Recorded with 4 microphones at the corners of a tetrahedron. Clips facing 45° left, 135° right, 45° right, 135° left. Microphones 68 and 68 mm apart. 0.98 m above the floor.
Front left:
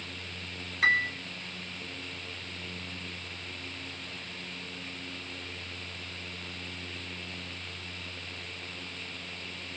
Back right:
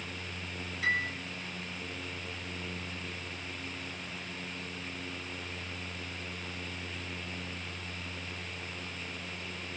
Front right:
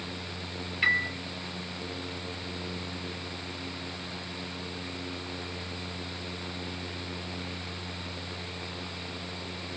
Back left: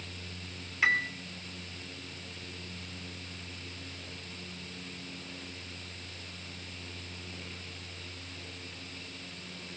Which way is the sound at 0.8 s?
55° left.